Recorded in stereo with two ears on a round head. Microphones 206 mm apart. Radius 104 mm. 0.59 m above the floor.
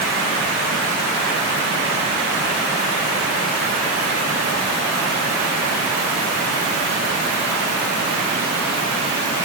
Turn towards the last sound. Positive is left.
No sound to turn to.